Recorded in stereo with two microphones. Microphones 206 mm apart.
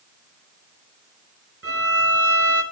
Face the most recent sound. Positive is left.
turn(degrees=-80)